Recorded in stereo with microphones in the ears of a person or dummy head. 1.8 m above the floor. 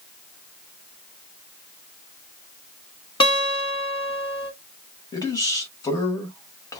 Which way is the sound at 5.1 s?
20° left (ahead or behind).